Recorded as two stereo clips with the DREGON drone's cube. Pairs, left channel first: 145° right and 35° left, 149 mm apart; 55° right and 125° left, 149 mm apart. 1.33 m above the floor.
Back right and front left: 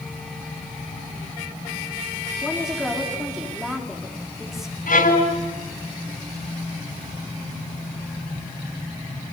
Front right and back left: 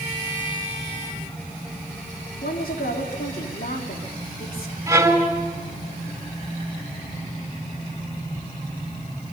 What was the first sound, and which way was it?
A woman speaking, 55° right.